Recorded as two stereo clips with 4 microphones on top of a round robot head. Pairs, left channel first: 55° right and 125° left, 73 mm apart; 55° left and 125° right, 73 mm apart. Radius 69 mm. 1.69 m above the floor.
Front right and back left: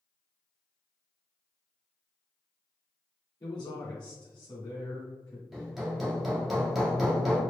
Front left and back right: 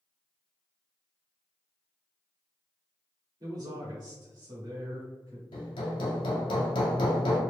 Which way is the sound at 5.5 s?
40° left.